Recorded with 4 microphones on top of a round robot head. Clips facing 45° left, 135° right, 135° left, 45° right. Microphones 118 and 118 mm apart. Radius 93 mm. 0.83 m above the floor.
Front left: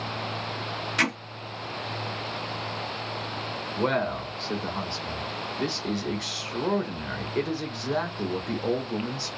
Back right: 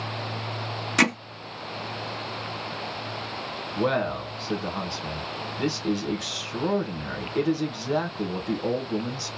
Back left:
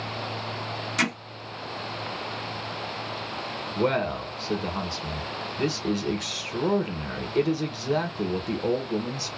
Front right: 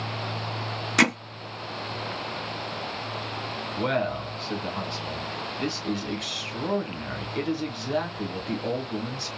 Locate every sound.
1.0 s hammering: 85° right, 0.6 m
3.8 s a man speaking: 155° left, 1.1 m